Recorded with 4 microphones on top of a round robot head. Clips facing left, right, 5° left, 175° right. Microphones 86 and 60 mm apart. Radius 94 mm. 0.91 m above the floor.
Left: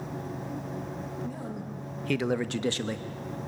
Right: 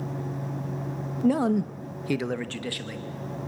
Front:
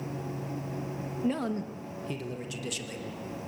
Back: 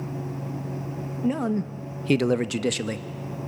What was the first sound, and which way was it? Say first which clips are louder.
A man speaking: right 14 dB, back 6 dB; 95° right.